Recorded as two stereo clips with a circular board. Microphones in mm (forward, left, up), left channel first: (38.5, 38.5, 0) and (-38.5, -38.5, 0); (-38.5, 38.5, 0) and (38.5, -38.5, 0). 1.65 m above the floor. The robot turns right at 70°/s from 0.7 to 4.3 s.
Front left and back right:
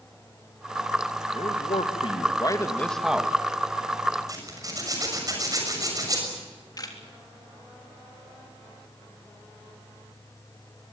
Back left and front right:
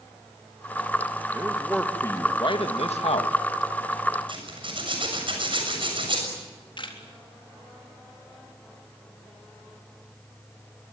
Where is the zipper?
80° right, 6.5 m.